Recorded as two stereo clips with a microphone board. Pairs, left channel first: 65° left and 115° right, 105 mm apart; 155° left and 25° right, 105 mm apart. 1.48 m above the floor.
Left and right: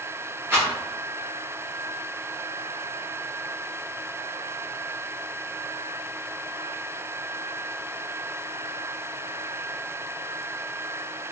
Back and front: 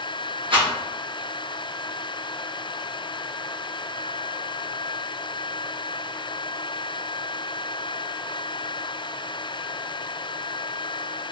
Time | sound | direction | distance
0.5 | a rattle | 45° right | 1.0 m